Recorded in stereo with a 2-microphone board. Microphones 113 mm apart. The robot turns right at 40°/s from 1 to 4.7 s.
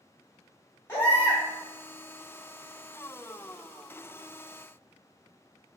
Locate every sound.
0.9 s a baby crying: 20° left (ahead or behind), 1.3 m